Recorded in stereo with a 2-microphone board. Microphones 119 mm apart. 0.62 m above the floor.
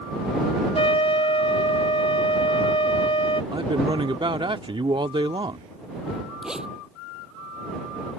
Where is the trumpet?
55° left (ahead or behind).